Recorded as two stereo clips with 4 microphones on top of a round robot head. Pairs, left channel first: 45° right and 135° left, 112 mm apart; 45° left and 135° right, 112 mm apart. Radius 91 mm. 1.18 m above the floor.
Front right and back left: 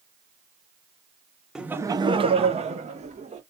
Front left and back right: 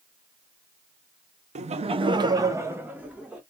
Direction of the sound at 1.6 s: 140° right.